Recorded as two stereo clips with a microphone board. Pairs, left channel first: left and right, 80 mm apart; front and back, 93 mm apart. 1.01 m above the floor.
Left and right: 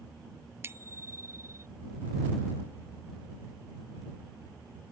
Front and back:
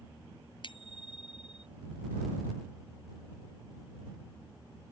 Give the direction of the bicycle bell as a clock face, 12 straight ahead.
1 o'clock.